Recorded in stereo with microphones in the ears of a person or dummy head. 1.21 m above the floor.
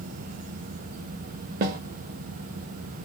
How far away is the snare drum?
About 0.8 m.